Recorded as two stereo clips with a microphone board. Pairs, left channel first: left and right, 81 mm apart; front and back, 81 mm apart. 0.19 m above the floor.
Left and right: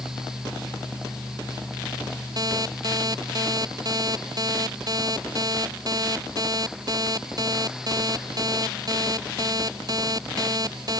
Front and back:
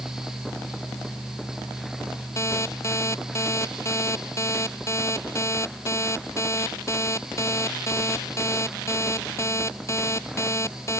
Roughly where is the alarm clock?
Ahead right.